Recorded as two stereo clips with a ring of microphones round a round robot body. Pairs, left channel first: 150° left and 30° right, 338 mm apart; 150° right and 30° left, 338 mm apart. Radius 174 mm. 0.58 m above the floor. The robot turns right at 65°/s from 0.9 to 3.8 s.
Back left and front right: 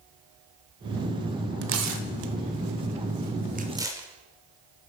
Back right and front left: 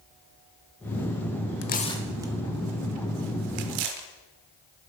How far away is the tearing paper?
About 0.7 m.